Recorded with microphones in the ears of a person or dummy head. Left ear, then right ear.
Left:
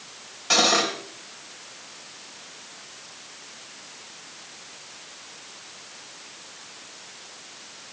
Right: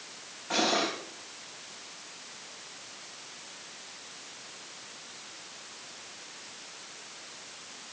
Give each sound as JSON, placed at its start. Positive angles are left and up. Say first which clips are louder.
{"t": 0.5, "sound": "cutlery clinking", "louder": "left 8 dB", "side_deg": 75, "distance_m": 3.5}